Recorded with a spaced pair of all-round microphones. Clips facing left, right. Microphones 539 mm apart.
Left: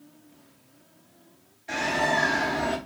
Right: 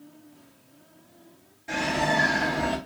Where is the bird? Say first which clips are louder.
Right 1 dB; 65° right (ahead or behind), 2.5 m.